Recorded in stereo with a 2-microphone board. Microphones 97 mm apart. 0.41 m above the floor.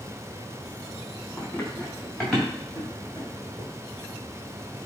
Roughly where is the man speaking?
I don't hear a man speaking.